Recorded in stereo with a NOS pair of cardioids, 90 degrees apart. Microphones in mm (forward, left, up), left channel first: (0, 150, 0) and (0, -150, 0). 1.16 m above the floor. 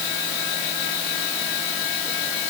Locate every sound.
Only background noise.